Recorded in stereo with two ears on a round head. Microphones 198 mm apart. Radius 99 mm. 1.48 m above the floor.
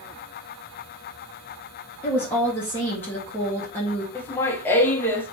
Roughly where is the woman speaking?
Centre.